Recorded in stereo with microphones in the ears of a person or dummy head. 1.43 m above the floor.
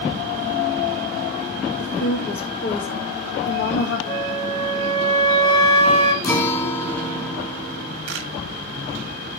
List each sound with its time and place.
1.8 s a woman speaking: 85° left, 2.5 m
4.1 s a flute: 25° left (ahead or behind), 1.7 m
6.2 s a guitar: 15° left (ahead or behind), 1.6 m
8.1 s a camera shutter: 70° right (ahead or behind), 1.3 m